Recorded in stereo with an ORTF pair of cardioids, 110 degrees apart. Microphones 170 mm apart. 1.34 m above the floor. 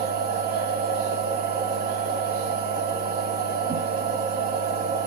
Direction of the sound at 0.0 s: 65° right.